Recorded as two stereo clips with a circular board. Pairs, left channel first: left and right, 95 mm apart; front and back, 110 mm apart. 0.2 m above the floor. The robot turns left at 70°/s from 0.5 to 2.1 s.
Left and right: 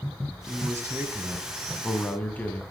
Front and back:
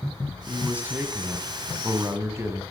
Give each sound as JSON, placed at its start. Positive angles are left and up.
{"t": 0.5, "sound": "a man speaking", "azimuth_deg": -100, "distance_m": 1.4}